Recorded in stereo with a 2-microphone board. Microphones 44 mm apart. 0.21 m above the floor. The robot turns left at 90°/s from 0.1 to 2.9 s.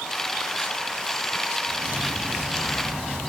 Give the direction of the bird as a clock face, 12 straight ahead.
3 o'clock.